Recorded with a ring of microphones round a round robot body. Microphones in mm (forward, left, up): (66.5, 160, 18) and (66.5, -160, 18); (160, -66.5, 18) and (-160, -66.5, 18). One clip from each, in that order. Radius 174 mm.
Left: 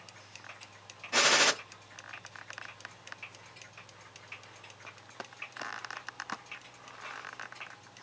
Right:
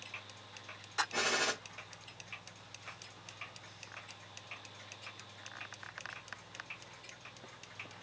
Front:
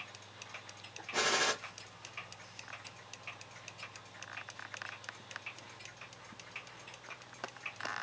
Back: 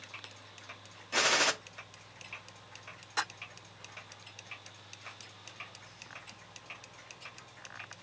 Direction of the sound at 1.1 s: 125° left.